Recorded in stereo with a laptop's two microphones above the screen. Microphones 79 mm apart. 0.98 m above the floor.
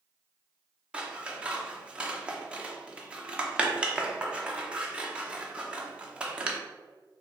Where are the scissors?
15° right (ahead or behind), 0.6 m.